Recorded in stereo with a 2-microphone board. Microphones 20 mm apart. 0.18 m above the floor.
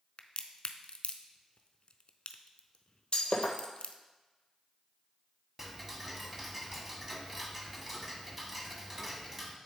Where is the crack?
60° left (ahead or behind), 0.5 m.